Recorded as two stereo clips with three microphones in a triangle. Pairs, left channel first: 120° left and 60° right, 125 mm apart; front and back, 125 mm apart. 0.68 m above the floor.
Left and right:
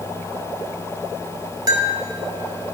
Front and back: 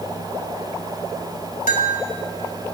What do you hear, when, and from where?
1.7 s a bell: 5° right, 1.6 m